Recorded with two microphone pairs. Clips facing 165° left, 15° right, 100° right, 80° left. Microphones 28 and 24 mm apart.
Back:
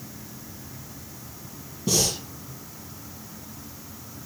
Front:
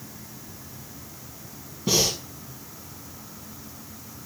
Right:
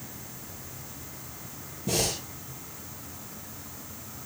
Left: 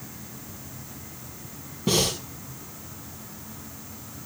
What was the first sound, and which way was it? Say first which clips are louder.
Breathing: front 1 dB, left 5 dB; 45° left.